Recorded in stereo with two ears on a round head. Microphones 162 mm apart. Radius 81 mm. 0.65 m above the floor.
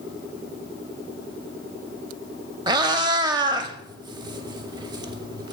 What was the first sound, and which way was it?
A cat meowing, 25° right (ahead or behind).